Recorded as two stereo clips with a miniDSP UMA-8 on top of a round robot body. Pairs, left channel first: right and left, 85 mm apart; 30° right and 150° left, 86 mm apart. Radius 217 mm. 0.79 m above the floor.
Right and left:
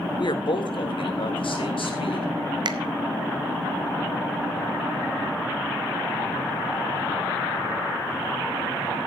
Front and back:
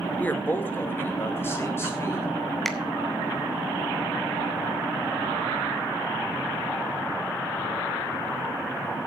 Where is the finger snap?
55° left, 1.3 m.